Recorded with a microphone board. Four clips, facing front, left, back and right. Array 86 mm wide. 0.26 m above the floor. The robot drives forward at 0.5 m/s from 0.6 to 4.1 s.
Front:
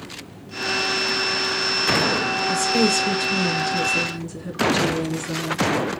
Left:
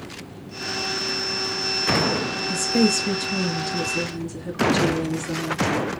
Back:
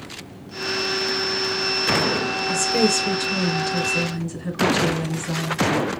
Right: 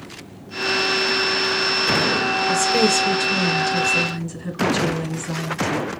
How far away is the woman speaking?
About 2.5 m.